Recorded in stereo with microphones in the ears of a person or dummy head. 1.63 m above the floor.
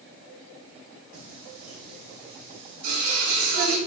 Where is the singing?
55° right (ahead or behind), 2.5 m.